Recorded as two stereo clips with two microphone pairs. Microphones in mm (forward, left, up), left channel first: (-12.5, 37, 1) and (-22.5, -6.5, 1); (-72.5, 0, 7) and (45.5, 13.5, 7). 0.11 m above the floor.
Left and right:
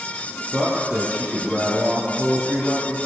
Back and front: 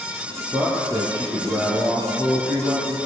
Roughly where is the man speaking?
Ahead right.